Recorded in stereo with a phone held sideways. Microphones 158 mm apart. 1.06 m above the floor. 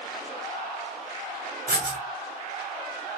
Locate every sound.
1.7 s writing: 75° right (ahead or behind), 2.5 m